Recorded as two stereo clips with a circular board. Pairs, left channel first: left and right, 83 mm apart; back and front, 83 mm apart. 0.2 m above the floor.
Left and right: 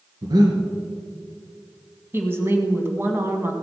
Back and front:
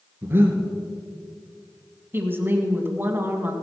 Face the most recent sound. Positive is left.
turn(degrees=-45)